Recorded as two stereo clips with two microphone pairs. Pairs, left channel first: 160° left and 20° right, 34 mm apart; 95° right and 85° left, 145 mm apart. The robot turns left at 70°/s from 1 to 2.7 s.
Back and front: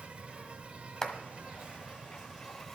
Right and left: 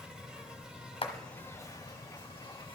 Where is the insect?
Straight ahead, 1.4 m; by 2.8 s 120° right, 1.4 m.